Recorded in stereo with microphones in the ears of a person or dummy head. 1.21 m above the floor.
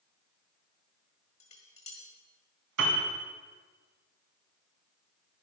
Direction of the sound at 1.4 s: 30° left (ahead or behind).